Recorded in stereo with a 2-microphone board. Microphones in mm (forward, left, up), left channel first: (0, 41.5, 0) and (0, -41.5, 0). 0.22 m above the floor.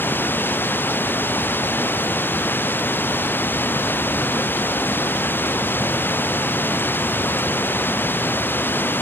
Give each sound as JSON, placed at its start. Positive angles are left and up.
{"t": 0.0, "sound": "running water", "side_deg": 25}